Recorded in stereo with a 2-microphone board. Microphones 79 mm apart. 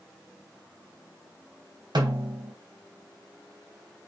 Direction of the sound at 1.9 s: 70° right (ahead or behind).